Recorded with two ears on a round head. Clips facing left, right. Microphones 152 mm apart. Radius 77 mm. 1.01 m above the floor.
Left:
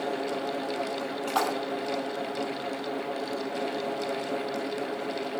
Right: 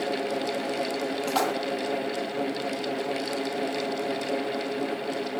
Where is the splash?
15° right (ahead or behind), 3 m.